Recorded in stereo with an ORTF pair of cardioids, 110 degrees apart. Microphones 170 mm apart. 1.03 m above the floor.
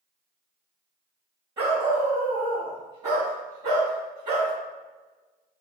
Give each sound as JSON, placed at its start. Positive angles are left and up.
{"t": 1.6, "sound": "a dog barking", "azimuth_deg": -35, "distance_m": 1.7}